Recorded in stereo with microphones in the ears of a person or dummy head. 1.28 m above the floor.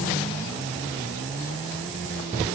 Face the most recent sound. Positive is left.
No sound to turn to.